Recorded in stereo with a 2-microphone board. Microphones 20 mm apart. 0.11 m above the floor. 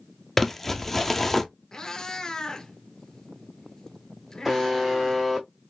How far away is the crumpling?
About 0.7 m.